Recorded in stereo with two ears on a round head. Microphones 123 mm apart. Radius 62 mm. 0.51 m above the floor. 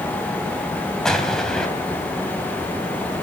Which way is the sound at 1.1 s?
5° left (ahead or behind).